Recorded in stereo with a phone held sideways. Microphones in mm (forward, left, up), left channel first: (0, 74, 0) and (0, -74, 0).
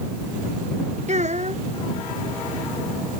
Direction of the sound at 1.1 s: 55° right (ahead or behind).